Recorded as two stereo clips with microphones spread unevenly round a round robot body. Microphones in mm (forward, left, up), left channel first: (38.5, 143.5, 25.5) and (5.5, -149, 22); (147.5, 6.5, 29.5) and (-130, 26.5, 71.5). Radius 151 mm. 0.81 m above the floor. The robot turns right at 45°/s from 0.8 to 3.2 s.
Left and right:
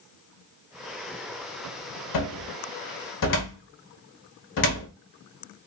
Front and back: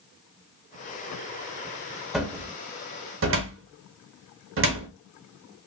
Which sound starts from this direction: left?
A cupboard door, at 2.1 s.